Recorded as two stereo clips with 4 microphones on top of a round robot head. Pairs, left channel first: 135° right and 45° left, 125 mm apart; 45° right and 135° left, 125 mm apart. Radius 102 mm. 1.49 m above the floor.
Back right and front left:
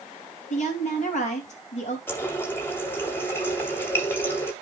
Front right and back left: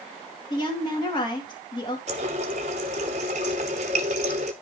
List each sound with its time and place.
0.5 s a woman speaking: 105° right, 3 m
2.1 s a running tap: 155° left, 0.6 m